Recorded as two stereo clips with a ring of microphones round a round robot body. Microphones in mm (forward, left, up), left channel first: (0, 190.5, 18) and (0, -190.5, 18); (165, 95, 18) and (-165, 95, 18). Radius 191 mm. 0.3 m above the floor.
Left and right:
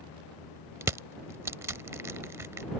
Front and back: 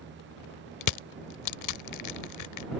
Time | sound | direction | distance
0.8 | crushing | 10° right | ?